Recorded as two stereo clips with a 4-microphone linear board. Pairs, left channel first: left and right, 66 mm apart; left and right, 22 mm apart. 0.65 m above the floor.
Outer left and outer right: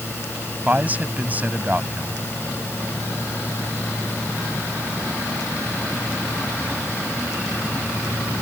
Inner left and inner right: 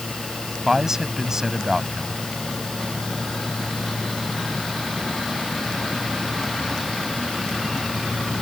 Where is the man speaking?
25° right (ahead or behind).